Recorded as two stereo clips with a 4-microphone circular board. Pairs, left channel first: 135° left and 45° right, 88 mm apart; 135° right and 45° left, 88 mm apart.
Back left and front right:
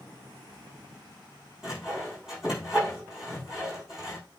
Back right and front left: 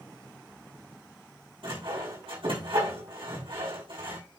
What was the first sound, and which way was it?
Sawing, 40° left.